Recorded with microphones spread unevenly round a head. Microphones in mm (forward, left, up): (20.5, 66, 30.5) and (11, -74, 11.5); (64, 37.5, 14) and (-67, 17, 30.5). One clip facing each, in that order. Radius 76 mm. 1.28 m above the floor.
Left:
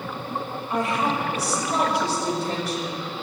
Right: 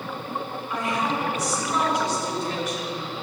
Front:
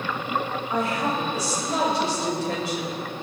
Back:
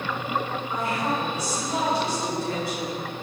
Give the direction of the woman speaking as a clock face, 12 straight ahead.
11 o'clock.